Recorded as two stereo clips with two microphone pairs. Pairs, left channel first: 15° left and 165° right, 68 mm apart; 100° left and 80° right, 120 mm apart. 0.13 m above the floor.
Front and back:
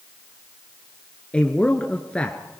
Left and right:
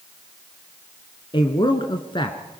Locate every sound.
1.3 s a man speaking: 80° left, 1.3 m